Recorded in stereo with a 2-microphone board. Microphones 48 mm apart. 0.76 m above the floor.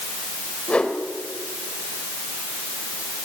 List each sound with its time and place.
0.7 s a whoosh: 25° left (ahead or behind), 3.5 m